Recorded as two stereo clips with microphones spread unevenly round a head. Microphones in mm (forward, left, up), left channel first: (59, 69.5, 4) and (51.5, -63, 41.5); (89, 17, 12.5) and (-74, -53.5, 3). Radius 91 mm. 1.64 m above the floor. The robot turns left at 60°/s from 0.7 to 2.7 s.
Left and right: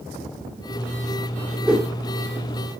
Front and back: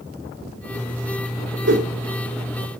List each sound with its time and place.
1.6 s a whoosh: 170° right, 2 m; by 1.9 s 175° left, 2 m